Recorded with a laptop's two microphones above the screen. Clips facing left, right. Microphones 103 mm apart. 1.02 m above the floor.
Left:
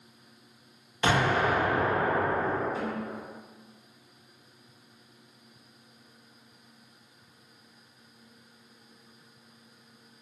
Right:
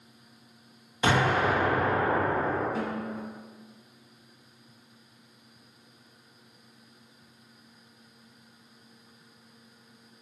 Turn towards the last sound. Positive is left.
turn(degrees=-80)